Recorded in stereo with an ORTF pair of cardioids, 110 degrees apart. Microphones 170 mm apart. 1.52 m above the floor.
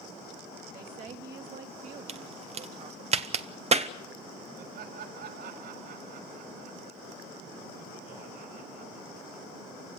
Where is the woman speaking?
55° right, 3 m.